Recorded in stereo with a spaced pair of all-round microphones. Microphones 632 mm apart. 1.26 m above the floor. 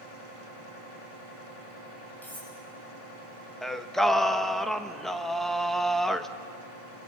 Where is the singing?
Centre (ahead or behind), 1.0 m.